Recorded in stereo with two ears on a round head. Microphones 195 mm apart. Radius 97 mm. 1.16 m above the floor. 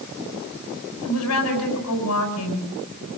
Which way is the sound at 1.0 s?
85° left.